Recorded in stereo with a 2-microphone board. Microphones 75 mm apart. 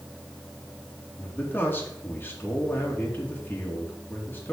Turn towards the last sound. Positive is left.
turn(degrees=25)  # may be behind; listen again after turning